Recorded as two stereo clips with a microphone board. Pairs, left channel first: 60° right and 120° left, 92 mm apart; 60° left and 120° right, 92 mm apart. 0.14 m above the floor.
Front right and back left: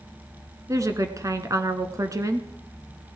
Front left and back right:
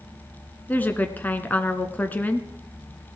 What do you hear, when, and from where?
0.7 s a woman speaking: 115° left, 1.3 m